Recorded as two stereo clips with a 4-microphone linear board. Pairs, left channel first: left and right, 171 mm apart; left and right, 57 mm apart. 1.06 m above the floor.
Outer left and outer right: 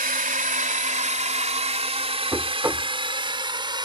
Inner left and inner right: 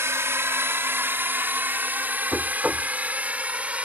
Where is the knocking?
20° right (ahead or behind).